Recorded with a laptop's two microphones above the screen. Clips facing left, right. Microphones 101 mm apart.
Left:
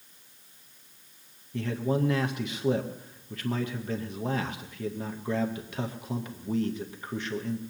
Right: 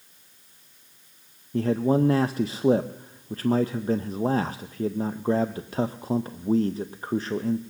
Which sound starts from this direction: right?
A man speaking, at 1.5 s.